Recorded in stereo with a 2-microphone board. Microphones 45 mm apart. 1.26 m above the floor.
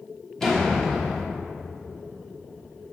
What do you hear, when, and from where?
0.4 s a door slam: 10° left (ahead or behind), 1.2 m